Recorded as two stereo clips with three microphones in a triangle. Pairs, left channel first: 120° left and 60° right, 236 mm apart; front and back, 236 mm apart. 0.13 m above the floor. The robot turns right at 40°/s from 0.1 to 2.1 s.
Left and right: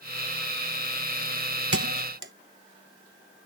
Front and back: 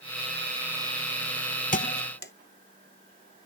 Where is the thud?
50° right; by 2.3 s 35° right.